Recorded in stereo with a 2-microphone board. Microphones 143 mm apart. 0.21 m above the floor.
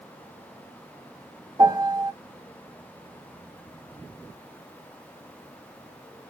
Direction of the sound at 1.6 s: 30° right (ahead or behind).